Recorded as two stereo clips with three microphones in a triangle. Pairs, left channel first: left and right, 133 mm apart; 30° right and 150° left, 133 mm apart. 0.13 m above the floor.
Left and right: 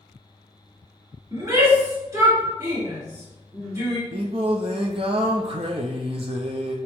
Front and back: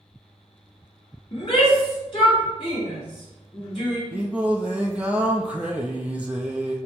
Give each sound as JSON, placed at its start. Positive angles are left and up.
{"t": 1.3, "sound": "a shout", "azimuth_deg": -40, "distance_m": 1.9}
{"t": 4.1, "sound": "singing", "azimuth_deg": -130, "distance_m": 0.6}